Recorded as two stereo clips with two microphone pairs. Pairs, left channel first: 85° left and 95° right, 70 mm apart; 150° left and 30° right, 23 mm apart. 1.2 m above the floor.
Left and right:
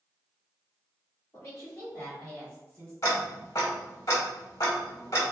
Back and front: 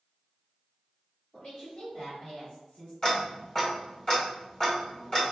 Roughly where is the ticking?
Left.